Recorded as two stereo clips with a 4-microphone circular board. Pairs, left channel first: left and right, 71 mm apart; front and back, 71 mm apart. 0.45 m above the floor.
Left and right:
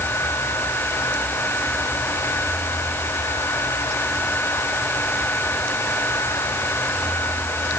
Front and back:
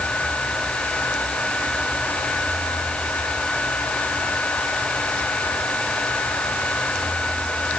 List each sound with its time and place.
Only background noise.